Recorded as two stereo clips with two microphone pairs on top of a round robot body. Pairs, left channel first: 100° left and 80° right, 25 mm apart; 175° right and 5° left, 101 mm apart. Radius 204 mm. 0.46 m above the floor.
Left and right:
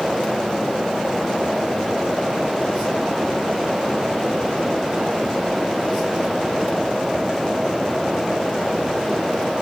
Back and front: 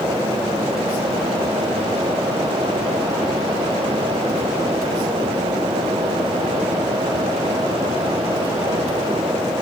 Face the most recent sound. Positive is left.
No sound to turn to.